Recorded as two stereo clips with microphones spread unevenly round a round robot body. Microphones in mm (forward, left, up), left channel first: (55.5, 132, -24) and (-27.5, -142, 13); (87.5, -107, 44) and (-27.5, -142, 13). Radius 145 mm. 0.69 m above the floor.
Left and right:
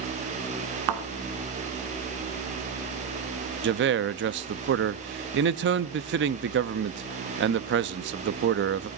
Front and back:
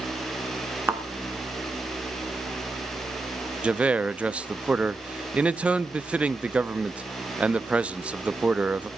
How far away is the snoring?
No snoring in this recording.